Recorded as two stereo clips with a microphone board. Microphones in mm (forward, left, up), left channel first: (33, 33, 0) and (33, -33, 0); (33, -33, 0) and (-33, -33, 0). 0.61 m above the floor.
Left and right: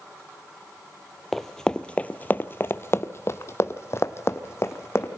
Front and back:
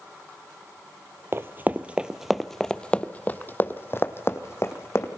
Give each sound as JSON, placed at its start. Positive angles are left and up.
{"t": 1.3, "sound": "running footsteps", "azimuth_deg": 175, "distance_m": 0.7}